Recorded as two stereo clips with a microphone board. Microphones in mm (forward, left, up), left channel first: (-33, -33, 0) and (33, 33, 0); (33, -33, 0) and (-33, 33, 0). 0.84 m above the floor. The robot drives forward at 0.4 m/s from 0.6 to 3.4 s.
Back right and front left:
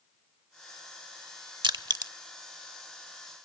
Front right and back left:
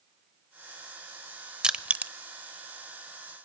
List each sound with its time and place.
1.6 s crushing: 55° left, 0.8 m; by 2.1 s 70° left, 0.7 m